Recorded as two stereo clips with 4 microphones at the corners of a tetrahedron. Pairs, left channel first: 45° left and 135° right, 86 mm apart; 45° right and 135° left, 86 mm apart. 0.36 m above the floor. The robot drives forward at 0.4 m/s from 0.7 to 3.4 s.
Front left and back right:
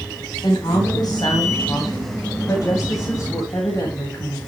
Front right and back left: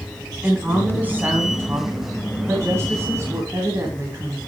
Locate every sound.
0.4 s a woman speaking: 65° left, 3 m; by 4.4 s 90° left, 3 m